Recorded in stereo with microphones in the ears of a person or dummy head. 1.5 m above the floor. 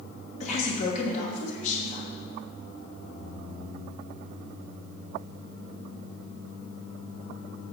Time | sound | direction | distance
0.4 | a woman speaking | 45° left (ahead or behind) | 1.6 m